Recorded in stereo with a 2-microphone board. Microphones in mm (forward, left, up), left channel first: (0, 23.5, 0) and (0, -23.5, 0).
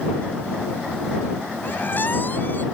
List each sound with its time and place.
1.6 s a squeak: 45° left (ahead or behind)